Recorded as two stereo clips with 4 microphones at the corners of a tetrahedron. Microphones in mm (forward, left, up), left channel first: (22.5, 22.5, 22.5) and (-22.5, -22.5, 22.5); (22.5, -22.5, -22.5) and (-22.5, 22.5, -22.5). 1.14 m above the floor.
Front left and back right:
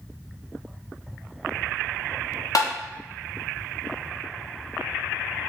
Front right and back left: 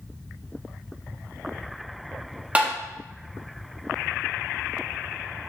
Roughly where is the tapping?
Ahead left.